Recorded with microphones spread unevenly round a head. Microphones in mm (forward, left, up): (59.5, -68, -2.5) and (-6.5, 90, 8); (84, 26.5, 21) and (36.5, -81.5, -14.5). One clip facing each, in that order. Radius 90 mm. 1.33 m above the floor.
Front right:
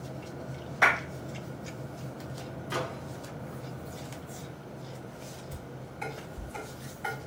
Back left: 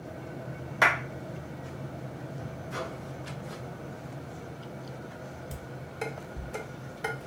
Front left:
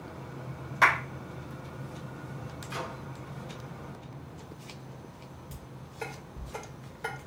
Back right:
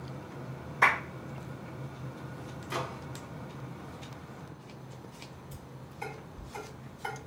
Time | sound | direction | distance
0.8 | a clap | 95° left | 2.5 m
2.7 | a microwave | 75° right | 1.0 m
5.5 | dishes clattering | 105° left | 3 m